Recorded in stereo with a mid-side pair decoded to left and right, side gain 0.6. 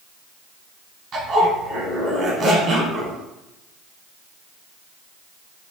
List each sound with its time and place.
1.1 s a zipper: 40° right, 1.3 m